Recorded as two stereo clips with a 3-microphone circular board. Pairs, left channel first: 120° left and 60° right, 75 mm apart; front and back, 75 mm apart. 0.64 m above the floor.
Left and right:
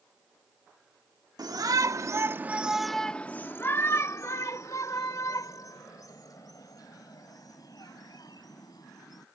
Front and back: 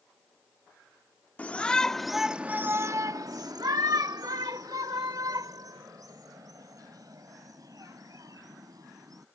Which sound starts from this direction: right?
A shout, at 1.4 s.